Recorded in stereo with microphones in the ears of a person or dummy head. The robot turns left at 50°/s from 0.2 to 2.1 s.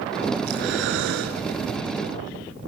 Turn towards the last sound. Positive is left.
turn(degrees=-145)